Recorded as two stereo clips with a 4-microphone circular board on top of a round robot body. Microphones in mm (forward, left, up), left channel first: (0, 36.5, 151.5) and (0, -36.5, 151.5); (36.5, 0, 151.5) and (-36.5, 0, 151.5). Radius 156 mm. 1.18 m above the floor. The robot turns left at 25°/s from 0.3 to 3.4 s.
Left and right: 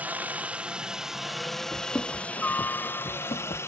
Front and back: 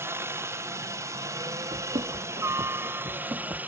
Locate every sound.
0.0 s a helicopter: 145° right; by 3.7 s 125° left
1.7 s running footsteps: 165° left; by 3.6 s 115° left